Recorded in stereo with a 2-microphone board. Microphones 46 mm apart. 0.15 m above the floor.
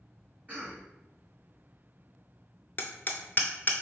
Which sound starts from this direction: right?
A cough, at 0.5 s.